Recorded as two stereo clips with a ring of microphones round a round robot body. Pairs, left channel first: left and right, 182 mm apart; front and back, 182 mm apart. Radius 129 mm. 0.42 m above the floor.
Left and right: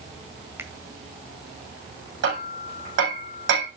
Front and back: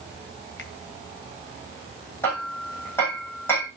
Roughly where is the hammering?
Right.